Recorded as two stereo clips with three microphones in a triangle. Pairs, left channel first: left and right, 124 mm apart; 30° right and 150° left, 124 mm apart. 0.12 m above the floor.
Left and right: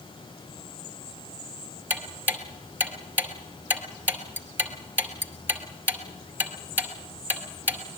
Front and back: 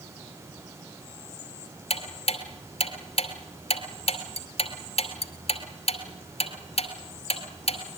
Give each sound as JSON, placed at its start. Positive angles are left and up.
{"t": 1.9, "sound": "ticking", "azimuth_deg": -20, "distance_m": 2.5}